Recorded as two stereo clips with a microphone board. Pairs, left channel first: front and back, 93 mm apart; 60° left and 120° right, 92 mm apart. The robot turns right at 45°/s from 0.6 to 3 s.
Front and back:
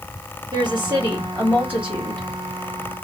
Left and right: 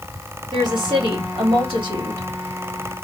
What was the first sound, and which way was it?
A woman speaking, 155° right.